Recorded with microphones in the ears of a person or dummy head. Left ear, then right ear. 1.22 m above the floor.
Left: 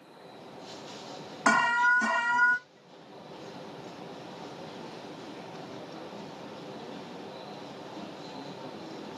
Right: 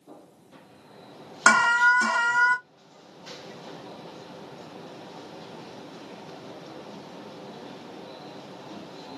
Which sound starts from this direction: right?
An alarm, at 1.5 s.